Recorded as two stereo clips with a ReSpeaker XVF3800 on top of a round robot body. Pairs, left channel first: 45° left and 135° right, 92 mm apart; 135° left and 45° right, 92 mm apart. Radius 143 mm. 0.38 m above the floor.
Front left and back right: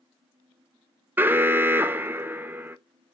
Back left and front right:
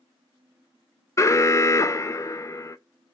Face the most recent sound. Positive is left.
turn(degrees=170)